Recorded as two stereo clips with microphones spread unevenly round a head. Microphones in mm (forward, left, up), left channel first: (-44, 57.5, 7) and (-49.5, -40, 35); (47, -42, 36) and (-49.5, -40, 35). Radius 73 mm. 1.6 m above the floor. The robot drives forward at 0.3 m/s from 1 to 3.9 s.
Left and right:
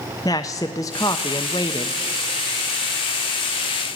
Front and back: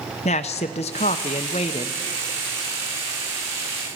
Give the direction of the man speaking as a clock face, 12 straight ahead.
12 o'clock.